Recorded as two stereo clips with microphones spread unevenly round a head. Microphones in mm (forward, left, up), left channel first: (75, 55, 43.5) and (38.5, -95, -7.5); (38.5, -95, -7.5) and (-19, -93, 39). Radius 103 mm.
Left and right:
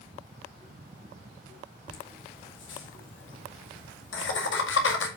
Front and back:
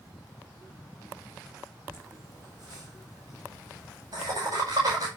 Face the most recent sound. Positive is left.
turn(degrees=105)